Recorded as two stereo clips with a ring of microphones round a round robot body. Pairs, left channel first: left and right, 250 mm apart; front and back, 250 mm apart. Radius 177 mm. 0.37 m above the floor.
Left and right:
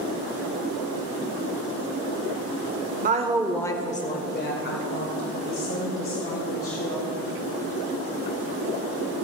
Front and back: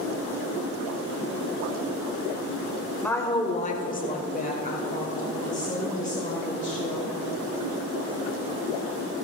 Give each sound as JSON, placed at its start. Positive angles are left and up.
{"t": 3.0, "sound": "a woman speaking", "azimuth_deg": -80, "distance_m": 0.9}